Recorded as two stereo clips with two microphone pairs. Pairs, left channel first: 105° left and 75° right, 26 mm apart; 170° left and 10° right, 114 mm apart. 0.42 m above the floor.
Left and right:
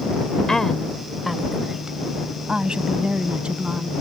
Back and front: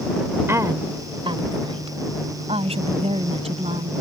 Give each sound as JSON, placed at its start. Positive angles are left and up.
{"t": 0.5, "sound": "a woman speaking", "azimuth_deg": 45}